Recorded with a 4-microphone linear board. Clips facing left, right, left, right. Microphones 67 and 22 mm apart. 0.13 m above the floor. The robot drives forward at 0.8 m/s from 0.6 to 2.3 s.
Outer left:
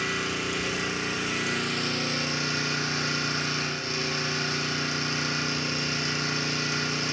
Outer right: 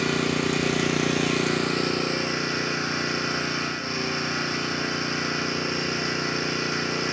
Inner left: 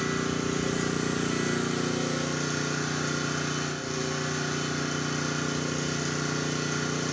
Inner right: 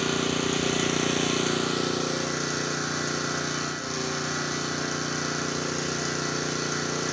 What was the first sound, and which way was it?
An engine running, 60° right (ahead or behind).